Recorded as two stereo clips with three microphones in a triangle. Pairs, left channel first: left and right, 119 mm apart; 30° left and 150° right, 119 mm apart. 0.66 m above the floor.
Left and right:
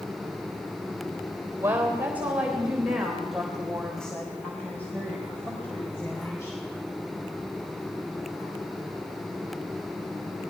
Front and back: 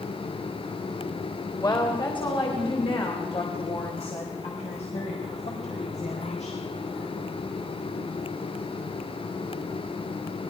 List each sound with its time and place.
1.6 s a woman speaking: 20° right, 3.5 m; by 6.6 s 25° left, 4.5 m